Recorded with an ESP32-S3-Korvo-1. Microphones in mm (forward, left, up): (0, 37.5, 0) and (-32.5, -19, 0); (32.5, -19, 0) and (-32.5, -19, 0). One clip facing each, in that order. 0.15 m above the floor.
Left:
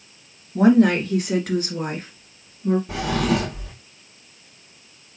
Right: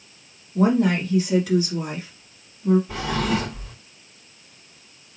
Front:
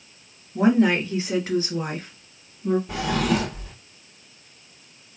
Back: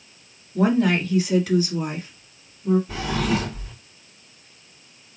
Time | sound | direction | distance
0.6 | a woman speaking | 70° left | 2 m
2.9 | a drawer | 35° left | 2.5 m